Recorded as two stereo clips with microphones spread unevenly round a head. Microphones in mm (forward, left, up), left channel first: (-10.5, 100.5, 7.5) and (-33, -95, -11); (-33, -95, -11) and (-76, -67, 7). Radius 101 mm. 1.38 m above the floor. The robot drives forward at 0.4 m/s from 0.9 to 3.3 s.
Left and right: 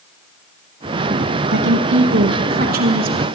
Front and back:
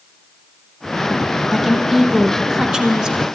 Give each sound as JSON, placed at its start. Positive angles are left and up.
{"t": 1.5, "sound": "a woman speaking", "azimuth_deg": -125, "distance_m": 1.5}